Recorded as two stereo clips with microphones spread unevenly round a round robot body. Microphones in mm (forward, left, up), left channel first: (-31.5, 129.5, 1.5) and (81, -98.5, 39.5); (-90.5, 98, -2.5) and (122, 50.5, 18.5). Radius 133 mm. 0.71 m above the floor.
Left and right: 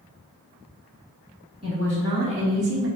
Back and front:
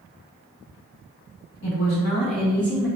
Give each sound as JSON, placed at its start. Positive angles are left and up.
{"t": 1.6, "sound": "a woman speaking", "azimuth_deg": -170, "distance_m": 1.6}